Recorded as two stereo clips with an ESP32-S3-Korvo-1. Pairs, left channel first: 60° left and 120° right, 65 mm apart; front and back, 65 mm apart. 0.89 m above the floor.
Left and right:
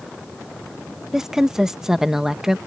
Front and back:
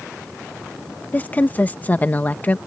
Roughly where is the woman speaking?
Ahead right.